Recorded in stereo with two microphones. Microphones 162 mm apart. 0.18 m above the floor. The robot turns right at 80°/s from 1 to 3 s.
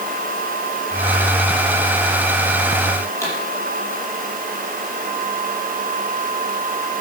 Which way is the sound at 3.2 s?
15° left (ahead or behind).